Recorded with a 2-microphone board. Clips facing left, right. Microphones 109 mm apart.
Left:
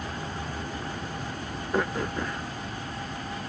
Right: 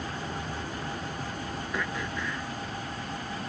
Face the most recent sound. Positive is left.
turn(degrees=45)  # may be behind; listen again after turning